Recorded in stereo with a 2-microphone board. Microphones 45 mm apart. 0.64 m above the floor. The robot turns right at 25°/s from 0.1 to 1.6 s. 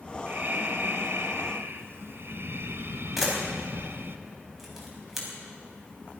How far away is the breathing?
About 1.0 m.